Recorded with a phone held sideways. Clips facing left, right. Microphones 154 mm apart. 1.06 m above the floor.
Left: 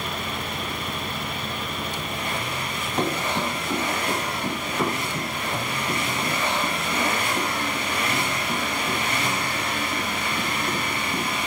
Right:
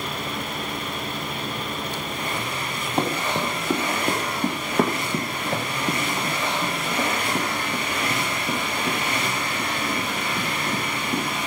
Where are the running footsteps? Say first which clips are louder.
Right 1 dB; 30° right (ahead or behind), 3.5 m; by 11.2 s 65° right (ahead or behind), 7.5 m.